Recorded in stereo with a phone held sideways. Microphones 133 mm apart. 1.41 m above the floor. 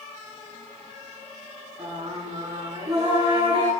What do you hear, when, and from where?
1.8 s singing: 50° right (ahead or behind), 6.5 m